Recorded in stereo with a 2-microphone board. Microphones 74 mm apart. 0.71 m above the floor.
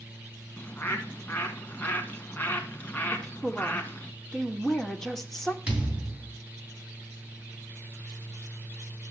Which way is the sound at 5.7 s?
20° right (ahead or behind).